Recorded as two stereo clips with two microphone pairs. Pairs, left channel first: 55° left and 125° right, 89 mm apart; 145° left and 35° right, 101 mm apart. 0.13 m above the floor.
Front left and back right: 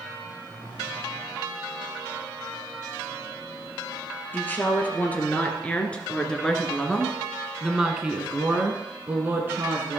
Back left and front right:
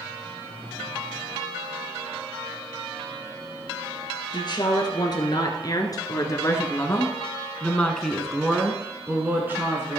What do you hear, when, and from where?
4.3 s a woman speaking: 115° left, 2.5 m; by 10.0 s 85° right, 1.7 m